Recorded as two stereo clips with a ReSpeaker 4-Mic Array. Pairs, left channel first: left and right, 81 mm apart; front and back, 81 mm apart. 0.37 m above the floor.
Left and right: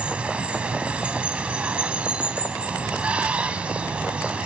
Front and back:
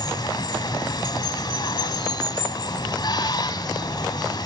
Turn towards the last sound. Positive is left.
turn(degrees=-15)